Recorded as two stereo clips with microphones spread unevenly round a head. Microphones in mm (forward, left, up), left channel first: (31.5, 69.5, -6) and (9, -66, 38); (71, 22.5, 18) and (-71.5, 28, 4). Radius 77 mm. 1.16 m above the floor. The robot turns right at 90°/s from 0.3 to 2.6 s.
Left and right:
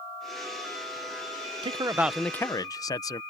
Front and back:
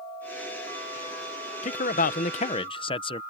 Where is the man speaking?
40° right; by 3.2 s 45° left.